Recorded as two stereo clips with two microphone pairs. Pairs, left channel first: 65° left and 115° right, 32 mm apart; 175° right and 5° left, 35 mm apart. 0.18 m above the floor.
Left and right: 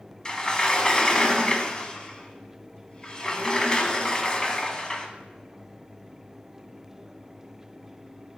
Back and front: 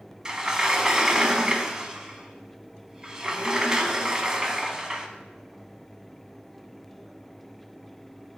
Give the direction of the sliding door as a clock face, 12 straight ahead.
10 o'clock.